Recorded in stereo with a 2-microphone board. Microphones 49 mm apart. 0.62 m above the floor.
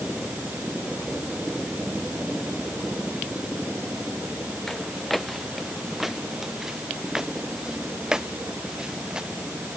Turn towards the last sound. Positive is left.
turn(degrees=-20)  # may be behind; listen again after turning